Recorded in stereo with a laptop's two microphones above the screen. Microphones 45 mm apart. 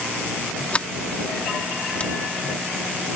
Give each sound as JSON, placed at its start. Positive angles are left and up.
{"t": 0.7, "sound": "a sliding door", "side_deg": 30}